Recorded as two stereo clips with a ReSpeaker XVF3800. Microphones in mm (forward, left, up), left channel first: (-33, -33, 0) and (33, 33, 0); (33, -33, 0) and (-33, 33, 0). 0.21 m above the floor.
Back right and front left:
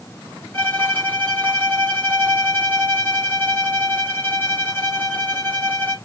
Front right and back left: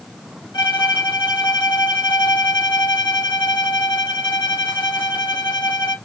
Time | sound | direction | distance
0.5 | a violin | 70° right | 3 m